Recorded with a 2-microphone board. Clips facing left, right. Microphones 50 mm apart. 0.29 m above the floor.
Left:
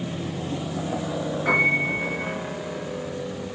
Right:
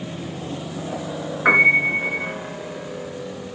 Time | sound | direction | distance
1.4 | a piano | 65° right (ahead or behind) | 4.5 m